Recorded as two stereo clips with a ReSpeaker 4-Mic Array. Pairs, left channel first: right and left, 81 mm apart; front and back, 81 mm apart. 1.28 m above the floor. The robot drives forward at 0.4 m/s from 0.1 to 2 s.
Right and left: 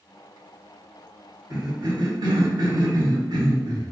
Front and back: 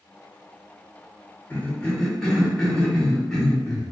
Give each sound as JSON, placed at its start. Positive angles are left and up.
{"t": 1.5, "sound": "a cough", "azimuth_deg": 65, "distance_m": 0.9}